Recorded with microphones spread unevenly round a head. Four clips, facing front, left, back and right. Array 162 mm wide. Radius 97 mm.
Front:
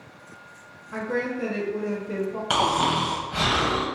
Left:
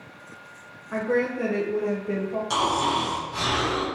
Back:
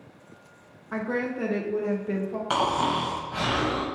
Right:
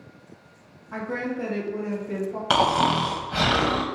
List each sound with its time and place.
0.9 s a woman speaking: 145° left, 1.1 m
2.5 s snoring: 65° right, 0.8 m